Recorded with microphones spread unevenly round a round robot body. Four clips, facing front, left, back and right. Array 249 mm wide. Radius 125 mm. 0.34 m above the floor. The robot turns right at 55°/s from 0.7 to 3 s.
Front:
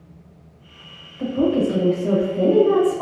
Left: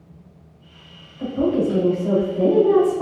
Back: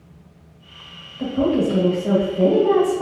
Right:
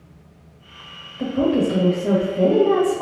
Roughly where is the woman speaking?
Right.